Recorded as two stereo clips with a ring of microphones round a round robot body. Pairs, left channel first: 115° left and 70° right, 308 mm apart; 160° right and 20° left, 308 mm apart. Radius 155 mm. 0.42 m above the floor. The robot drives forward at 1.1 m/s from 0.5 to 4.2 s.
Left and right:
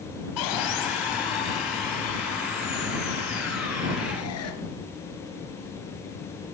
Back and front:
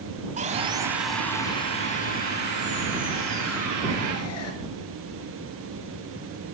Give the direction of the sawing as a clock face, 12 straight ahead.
9 o'clock.